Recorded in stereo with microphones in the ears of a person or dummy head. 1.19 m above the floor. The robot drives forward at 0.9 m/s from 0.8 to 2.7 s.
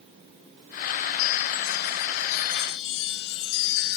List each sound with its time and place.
1.2 s a chime: 80° left, 3.5 m; by 4.0 s 75° left (ahead or behind), 3.5 m